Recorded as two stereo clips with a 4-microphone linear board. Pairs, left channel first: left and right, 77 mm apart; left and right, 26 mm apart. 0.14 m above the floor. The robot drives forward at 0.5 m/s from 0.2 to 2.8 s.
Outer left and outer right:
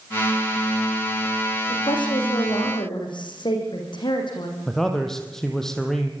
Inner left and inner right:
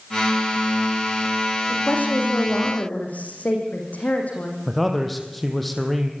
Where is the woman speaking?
80° left, 9 m.